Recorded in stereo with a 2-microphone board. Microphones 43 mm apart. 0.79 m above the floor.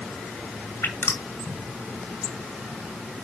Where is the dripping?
85° left, 2 m.